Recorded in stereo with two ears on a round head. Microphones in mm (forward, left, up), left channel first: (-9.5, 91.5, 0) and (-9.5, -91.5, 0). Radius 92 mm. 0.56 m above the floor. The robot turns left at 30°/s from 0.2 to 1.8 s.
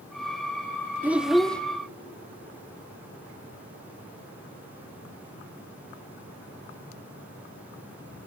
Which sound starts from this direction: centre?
A child speaking, at 1.0 s.